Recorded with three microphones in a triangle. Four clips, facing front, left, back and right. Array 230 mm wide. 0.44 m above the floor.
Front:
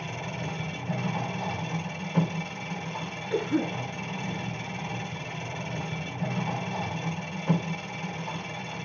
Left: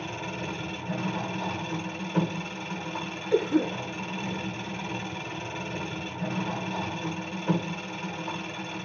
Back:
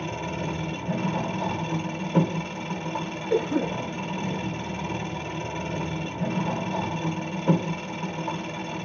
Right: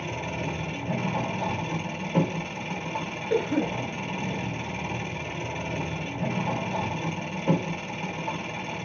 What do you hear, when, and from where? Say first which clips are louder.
0.0 s an engine running: right 3 dB, back 5 dB; 160° right, 1.0 m
3.3 s a cough: left 1 dB, back 3 dB; 145° right, 3 m